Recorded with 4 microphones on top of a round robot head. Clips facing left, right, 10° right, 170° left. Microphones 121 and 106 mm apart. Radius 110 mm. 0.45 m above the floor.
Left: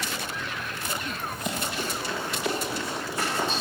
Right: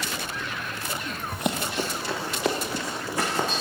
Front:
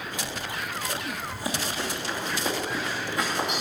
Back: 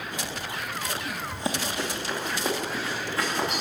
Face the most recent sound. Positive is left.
turn(degrees=-100)